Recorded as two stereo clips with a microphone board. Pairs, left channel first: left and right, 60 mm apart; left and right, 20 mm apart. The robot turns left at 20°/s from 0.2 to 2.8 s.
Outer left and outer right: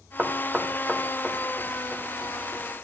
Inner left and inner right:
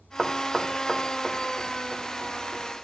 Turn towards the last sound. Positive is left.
turn(degrees=25)  # may be behind; listen again after turning